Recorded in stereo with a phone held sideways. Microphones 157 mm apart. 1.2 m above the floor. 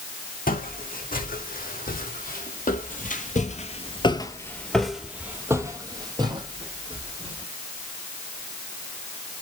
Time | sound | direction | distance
0.5 | footsteps | 65° left (ahead or behind) | 4.5 m